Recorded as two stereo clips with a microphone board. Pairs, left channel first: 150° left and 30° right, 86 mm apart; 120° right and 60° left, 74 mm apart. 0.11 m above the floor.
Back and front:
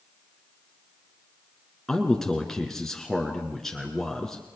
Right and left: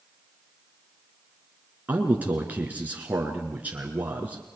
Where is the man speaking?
70° left, 1.8 m.